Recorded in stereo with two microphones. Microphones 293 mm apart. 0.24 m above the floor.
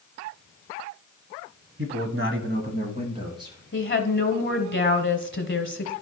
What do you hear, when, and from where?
1.8 s a man speaking: 45° right (ahead or behind), 1.5 m; by 3.6 s 10° right (ahead or behind), 2.5 m
3.7 s a woman speaking: 40° left (ahead or behind), 1.3 m